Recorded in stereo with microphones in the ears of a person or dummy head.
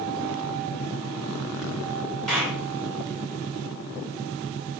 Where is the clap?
Centre (ahead or behind), 5.5 m.